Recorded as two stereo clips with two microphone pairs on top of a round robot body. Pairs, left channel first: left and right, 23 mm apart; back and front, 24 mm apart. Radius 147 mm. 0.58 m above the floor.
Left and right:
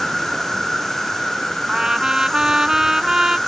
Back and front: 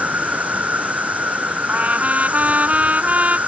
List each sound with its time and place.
0.0 s an insect: 10° left
1.7 s a trumpet: 25° right